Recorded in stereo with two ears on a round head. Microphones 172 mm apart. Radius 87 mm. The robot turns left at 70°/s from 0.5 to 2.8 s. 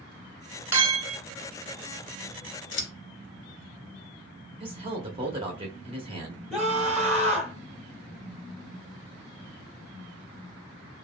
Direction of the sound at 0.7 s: 15° right.